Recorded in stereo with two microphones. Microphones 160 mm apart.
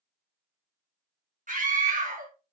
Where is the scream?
55° right (ahead or behind), 1.0 m.